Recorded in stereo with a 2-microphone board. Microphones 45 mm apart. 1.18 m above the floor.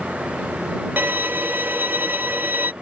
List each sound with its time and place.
1.0 s a violin: 45° right (ahead or behind)